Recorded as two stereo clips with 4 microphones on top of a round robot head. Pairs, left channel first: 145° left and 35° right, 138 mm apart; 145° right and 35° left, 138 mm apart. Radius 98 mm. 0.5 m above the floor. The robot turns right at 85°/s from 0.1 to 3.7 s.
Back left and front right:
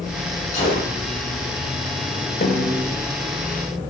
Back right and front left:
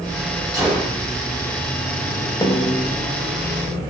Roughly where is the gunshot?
Left.